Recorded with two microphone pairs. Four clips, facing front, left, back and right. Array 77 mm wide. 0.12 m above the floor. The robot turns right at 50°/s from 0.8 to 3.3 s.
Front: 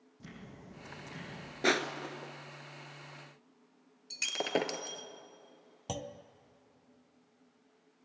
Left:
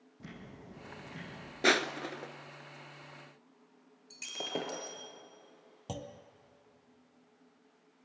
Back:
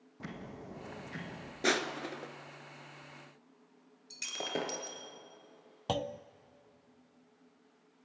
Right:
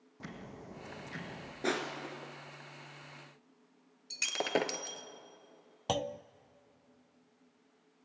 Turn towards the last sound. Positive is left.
turn(degrees=-115)